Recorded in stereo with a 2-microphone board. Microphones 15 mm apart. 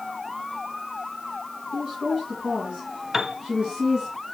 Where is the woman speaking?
65° right (ahead or behind), 3.5 m.